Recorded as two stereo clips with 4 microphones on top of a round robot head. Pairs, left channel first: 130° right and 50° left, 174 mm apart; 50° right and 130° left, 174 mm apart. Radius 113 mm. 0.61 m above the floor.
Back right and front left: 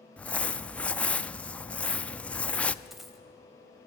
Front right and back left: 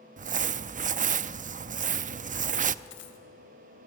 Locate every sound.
0.2 s crumpling: 145° left, 0.5 m
2.9 s a dropped coin: 40° right, 1.8 m